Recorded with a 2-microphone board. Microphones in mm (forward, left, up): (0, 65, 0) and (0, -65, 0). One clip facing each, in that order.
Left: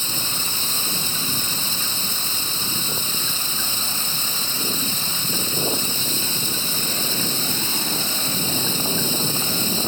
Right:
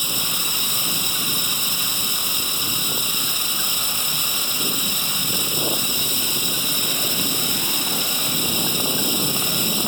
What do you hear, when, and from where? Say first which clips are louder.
0.0 s running water: right 1 dB; 15° right (ahead or behind)